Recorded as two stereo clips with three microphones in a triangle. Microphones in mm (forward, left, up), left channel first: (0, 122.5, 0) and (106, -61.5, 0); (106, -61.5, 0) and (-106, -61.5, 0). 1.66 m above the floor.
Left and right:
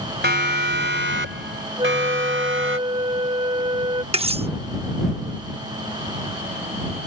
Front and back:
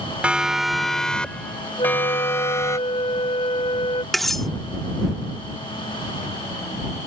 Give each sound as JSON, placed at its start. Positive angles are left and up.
{"t": 0.2, "sound": "a siren", "azimuth_deg": -95}
{"t": 1.8, "sound": "a flute", "azimuth_deg": -25}
{"t": 4.1, "sound": "cutlery clinking", "azimuth_deg": -90}